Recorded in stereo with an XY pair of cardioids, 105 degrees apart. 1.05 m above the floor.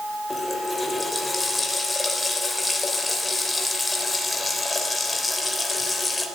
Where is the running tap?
15° left, 3 m.